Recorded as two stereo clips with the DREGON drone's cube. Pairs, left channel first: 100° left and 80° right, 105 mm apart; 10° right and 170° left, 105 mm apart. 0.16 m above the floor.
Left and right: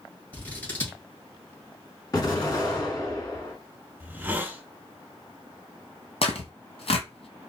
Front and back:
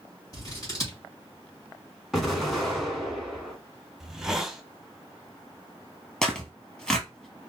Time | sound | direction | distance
0.3 | scissors | 30° left | 1.7 m
2.1 | an explosion | 75° left | 1.2 m
4.0 | a hiss | 110° right | 0.6 m
6.2 | tearing paper | 70° left | 0.9 m